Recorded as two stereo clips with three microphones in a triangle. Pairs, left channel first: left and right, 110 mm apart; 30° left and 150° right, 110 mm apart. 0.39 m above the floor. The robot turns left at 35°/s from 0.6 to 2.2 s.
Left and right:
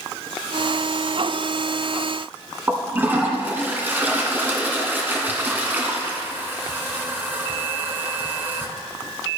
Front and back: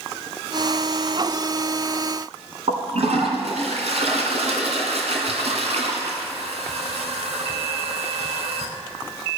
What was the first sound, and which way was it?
A toilet flushing, 160° right.